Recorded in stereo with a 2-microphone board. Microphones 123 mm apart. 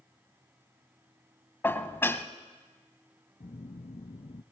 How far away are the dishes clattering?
About 1.1 m.